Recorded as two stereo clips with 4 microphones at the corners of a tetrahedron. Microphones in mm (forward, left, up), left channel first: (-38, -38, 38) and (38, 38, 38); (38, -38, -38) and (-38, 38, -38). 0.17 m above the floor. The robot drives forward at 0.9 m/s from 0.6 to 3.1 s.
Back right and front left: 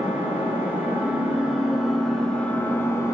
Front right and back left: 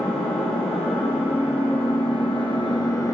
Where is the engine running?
25° right, 2.5 m; by 3.1 s 85° right, 1.5 m.